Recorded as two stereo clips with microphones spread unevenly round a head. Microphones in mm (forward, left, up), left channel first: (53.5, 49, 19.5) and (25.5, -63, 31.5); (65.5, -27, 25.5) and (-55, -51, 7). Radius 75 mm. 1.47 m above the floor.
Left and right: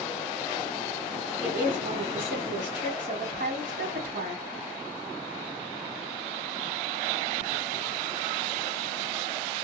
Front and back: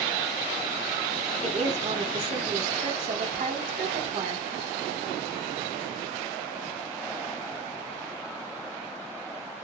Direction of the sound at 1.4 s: 130° right.